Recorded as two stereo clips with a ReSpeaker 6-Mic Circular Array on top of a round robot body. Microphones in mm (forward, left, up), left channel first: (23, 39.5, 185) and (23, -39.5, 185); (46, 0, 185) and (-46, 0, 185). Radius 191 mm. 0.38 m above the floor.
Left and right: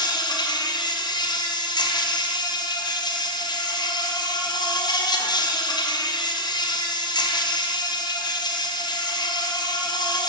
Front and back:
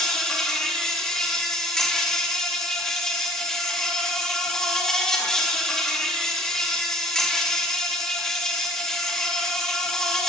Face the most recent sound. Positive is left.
turn(degrees=85)